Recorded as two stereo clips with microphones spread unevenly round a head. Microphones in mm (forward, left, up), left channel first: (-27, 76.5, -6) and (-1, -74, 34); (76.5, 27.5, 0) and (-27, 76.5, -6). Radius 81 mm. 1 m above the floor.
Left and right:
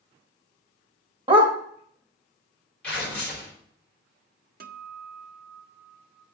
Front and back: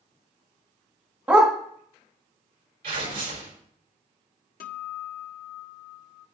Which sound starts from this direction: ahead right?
A guitar, at 4.6 s.